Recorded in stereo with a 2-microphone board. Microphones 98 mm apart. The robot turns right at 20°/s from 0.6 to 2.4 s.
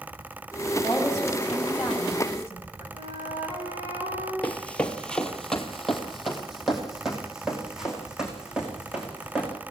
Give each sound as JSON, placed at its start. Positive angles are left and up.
{"t": 0.8, "sound": "a woman speaking", "azimuth_deg": 175, "distance_m": 8.5}
{"t": 2.9, "sound": "a flute", "side_deg": -50, "distance_m": 6.0}
{"t": 4.4, "sound": "running footsteps", "side_deg": 15, "distance_m": 1.5}